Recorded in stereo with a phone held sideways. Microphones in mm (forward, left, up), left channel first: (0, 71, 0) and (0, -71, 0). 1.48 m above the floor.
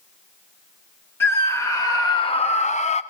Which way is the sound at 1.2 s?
15° left (ahead or behind).